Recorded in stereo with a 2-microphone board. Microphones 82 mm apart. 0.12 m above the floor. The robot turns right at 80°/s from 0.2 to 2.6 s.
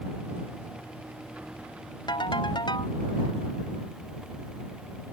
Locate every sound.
2.1 s a ringtone: 70° left; by 3.0 s 110° left